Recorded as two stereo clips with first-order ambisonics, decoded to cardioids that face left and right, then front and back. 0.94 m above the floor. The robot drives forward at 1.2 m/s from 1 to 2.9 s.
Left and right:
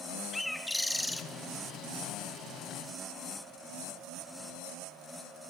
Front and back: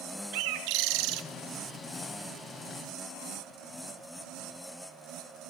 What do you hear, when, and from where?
0.3 s a bird: 175° left, 1.0 m